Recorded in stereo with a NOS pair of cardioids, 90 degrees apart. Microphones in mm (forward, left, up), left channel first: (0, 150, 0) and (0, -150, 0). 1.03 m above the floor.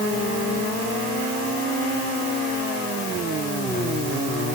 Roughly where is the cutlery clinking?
I don't hear cutlery clinking.